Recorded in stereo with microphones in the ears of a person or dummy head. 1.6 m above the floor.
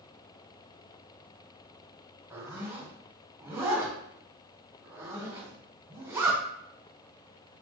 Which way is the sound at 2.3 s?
10° right (ahead or behind).